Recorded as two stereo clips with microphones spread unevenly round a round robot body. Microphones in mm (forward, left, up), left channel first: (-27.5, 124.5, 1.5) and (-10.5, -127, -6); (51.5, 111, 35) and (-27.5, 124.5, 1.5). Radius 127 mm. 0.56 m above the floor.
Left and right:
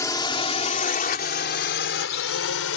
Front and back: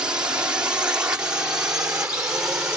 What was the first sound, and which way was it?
A drone, 165° left.